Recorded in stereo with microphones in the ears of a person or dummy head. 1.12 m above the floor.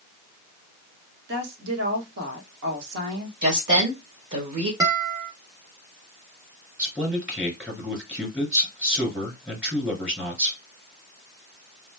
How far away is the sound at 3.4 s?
About 1.2 m.